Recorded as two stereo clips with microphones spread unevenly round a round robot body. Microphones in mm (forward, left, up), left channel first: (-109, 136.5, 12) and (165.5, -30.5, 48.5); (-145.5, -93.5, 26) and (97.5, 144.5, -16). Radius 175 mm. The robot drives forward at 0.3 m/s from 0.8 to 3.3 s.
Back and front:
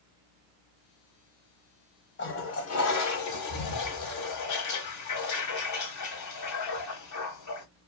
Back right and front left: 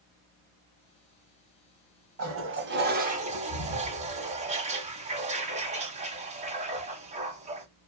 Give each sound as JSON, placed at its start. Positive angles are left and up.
{"t": 2.2, "sound": "a toilet flushing", "azimuth_deg": 95, "distance_m": 0.8}